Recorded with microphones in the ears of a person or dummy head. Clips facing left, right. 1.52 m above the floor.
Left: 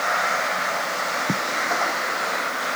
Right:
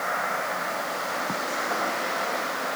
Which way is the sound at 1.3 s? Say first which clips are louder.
Left 9 dB; 40° left (ahead or behind).